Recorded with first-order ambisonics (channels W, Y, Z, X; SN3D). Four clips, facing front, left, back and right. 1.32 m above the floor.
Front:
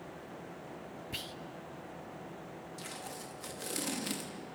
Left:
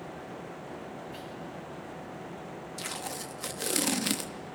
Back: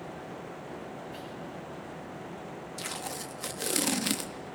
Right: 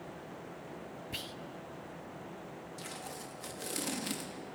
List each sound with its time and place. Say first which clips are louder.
1.1 s whispering: even, even; 45° right, 0.9 m
2.8 s tape being pulled: left 8 dB, back 8 dB; 135° left, 0.9 m